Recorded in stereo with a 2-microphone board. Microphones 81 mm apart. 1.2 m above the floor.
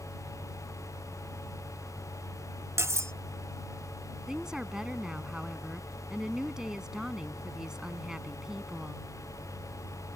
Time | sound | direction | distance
2.8 | cutlery clinking | 35° right (ahead or behind) | ?
4.3 | a woman speaking | 5° right (ahead or behind) | ?